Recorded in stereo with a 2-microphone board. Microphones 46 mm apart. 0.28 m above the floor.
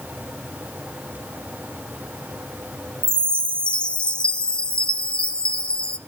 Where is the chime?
20° left (ahead or behind), 0.5 m.